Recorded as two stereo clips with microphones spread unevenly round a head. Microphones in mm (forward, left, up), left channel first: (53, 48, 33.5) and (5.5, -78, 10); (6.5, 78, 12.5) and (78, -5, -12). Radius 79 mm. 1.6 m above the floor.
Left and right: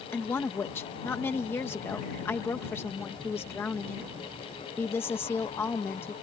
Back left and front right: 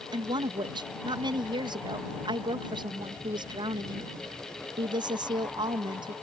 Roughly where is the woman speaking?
Ahead.